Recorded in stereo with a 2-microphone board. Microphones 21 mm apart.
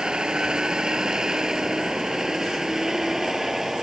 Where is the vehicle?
45° right (ahead or behind); by 3.8 s 20° right (ahead or behind).